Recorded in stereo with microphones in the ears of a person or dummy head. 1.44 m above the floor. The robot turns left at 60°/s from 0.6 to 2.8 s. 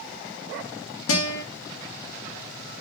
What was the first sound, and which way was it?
A guitar, 80° left.